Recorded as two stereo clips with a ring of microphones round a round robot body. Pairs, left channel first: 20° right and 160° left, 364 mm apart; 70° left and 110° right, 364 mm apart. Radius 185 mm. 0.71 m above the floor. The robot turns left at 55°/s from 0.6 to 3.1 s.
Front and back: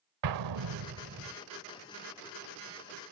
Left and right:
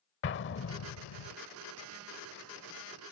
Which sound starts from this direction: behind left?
An explosion, at 0.2 s.